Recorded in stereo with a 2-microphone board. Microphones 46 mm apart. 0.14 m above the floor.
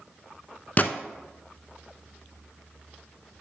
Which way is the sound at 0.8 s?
35° left (ahead or behind).